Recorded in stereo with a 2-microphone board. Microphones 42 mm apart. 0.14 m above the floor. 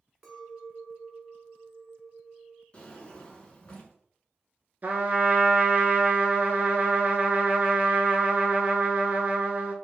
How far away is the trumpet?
About 0.6 m.